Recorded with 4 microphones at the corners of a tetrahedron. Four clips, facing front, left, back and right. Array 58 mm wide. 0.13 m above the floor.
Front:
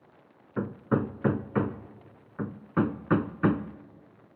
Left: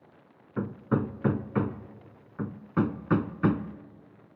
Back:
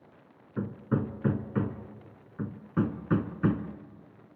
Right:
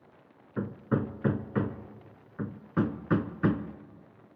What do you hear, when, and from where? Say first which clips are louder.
0.6 s hammering: left 2 dB, front 3 dB; 10° left, 0.6 m